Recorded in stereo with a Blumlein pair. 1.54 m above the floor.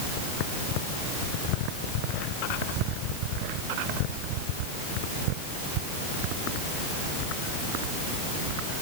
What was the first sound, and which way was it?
Only background noise.